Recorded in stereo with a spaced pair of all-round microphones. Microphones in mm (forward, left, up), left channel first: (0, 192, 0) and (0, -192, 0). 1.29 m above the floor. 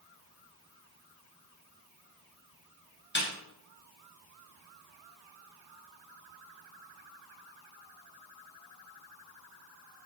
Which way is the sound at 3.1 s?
30° left (ahead or behind).